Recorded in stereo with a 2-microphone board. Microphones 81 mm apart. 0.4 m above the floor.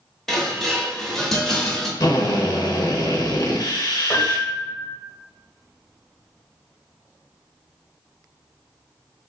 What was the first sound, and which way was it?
Dishes clattering, 5° left (ahead or behind).